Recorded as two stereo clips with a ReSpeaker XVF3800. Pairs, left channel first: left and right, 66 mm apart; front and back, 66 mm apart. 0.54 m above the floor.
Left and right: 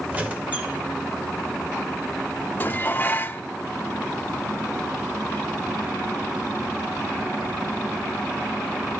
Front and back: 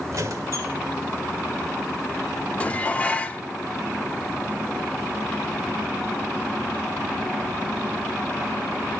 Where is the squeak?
155° right, 1.5 m.